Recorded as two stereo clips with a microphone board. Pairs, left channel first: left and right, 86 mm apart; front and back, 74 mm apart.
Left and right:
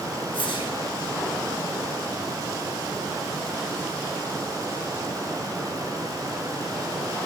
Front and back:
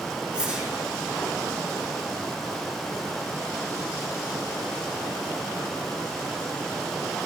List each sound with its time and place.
0.3 s a whoosh: 105° left, 5 m